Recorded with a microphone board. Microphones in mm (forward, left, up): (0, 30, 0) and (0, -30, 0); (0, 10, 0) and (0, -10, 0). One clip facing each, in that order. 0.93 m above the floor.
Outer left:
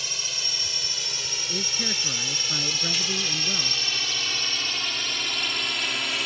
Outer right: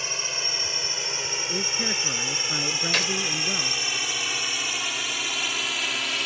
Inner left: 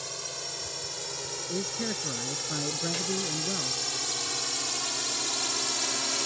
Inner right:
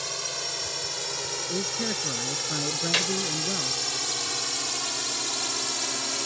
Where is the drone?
30° right (ahead or behind); by 6.3 s centre (ahead or behind).